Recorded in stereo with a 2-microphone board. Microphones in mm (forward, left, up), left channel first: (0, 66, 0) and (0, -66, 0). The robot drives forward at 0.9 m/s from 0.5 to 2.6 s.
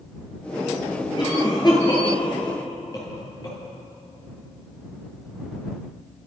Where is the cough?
35° left (ahead or behind), 8.5 m; by 3.6 s 30° left (ahead or behind), 9.5 m.